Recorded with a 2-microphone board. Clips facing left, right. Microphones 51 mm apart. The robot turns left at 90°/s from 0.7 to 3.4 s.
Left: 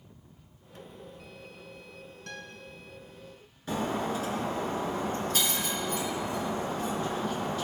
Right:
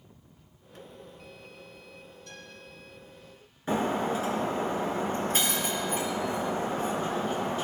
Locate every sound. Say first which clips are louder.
2.3 s a guitar: left 6 dB; 65° left (ahead or behind), 2.5 m; by 2.6 s 40° left (ahead or behind), 2.5 m
3.7 s breaking glass: right 3 dB; 30° right (ahead or behind), 3.5 m